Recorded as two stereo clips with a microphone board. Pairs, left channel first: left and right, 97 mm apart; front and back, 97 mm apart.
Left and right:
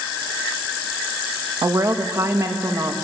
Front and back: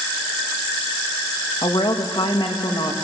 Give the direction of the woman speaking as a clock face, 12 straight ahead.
1 o'clock.